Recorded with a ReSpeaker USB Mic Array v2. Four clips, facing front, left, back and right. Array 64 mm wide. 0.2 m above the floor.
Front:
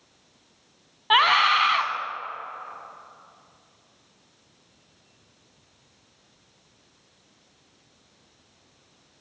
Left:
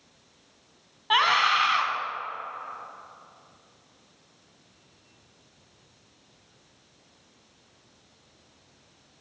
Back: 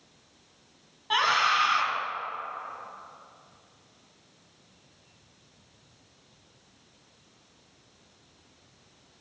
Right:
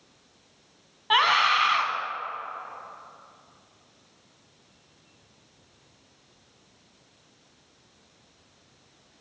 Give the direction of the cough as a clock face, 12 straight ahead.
No cough in this recording.